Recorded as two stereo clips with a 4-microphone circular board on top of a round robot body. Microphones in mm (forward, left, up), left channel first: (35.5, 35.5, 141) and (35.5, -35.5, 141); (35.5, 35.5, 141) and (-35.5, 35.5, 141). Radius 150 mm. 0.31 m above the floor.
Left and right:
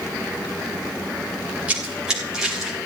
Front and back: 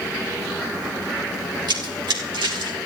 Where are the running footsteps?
165° right, 5 m; by 2.8 s straight behind, 5.5 m.